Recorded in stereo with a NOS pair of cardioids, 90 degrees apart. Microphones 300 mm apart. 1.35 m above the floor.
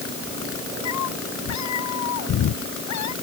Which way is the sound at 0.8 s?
65° left.